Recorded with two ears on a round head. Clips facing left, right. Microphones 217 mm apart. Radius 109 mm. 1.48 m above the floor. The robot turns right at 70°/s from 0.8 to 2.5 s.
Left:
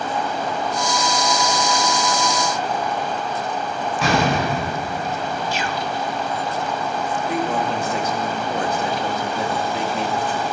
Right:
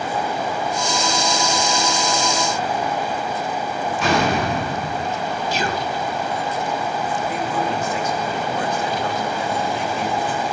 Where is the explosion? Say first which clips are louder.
Even; 70° left (ahead or behind), 8 m.